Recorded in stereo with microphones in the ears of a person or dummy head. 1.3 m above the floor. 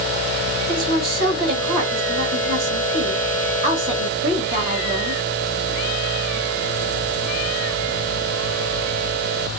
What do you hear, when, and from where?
0.7 s a woman speaking: 55° right (ahead or behind), 2 m